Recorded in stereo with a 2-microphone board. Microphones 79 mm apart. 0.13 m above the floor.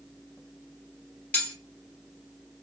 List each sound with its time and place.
1.3 s cutlery clinking: 20° left (ahead or behind), 1.6 m